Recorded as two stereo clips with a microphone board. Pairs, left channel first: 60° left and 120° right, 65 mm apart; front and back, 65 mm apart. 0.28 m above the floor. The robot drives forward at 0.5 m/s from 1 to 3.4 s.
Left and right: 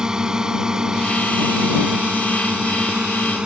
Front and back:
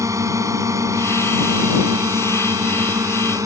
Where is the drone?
160° left; by 3.5 s 165° left.